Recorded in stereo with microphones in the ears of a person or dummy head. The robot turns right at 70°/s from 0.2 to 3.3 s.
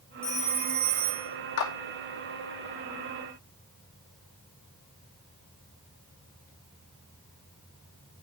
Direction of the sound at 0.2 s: 165° right.